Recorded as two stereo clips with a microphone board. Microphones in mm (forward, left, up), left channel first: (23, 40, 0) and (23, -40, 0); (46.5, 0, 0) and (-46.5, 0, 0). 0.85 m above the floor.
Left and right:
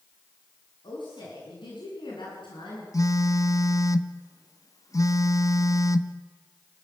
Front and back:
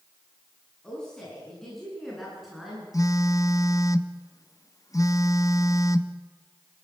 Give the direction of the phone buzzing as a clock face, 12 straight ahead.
10 o'clock.